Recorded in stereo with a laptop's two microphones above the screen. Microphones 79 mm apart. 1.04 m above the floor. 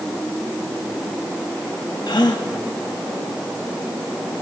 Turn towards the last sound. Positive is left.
turn(degrees=75)  # may be behind; listen again after turning